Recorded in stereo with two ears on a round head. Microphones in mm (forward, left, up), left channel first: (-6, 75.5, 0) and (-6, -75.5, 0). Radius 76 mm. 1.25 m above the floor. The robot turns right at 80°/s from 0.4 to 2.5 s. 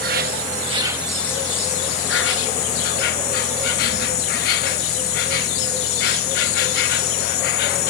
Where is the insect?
60° right; by 7.9 s 110° left.